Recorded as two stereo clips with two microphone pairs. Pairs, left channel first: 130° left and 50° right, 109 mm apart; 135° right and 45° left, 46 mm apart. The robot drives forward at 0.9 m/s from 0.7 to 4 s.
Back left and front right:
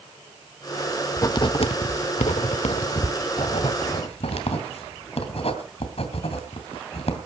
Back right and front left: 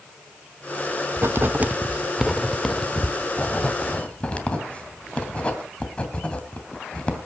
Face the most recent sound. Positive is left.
turn(degrees=160)